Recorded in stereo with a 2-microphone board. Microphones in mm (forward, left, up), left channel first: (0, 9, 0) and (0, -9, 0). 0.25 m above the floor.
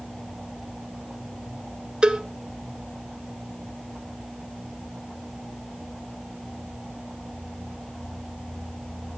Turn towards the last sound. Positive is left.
turn(degrees=-70)  # may be behind; listen again after turning